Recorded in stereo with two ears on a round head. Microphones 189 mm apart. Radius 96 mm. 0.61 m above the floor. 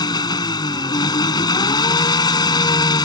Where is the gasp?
I don't hear a gasp.